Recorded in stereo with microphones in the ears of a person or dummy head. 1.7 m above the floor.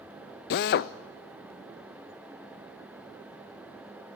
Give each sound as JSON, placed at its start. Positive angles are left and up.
{"t": 0.5, "sound": "a drill", "side_deg": 45, "distance_m": 0.6}